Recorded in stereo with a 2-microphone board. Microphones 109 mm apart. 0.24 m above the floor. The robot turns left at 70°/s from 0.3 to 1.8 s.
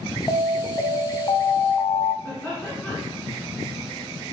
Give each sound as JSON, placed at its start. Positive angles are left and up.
{"t": 0.3, "sound": "an alarm", "azimuth_deg": 135, "distance_m": 1.0}
{"t": 2.2, "sound": "laughter", "side_deg": 15, "distance_m": 2.5}